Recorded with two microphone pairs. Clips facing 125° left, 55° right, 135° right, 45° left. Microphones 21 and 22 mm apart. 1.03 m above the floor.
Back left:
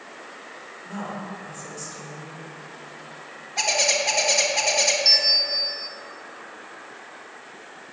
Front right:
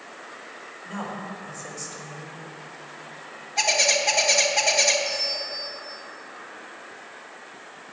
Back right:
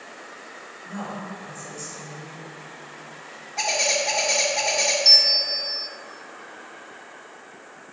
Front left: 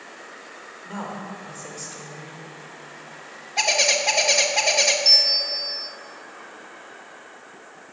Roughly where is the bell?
Behind left.